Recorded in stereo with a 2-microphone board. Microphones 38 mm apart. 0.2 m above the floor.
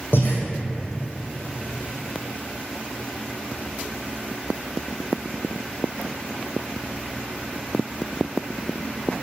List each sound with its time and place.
0.1 s breathing: 75° left (ahead or behind), 2 m